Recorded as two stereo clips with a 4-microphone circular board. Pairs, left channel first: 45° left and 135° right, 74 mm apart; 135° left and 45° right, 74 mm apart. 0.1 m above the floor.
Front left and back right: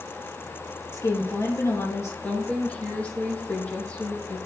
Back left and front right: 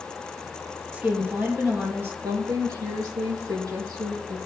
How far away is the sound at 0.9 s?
About 3 m.